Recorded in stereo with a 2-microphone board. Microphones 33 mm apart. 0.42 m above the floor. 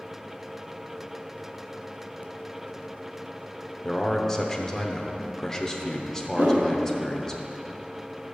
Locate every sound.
3.8 s a man speaking: 15° left (ahead or behind), 0.7 m
6.3 s a whoosh: 65° right (ahead or behind), 1.6 m